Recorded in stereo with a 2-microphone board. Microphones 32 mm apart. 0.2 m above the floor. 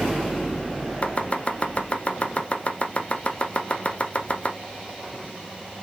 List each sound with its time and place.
1.0 s chopping: 40° left (ahead or behind), 0.8 m